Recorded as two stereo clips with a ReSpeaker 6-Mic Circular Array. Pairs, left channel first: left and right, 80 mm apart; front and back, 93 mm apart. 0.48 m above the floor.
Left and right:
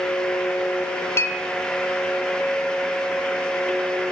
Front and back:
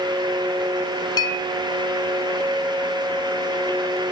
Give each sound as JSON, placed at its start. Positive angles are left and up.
{"t": 1.2, "sound": "a clink", "azimuth_deg": 35, "distance_m": 0.9}